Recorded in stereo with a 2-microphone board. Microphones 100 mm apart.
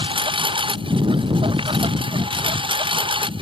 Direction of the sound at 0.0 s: 60° right (ahead or behind).